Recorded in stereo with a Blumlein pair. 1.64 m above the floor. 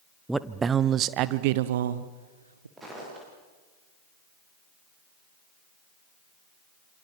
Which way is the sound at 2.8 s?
15° right.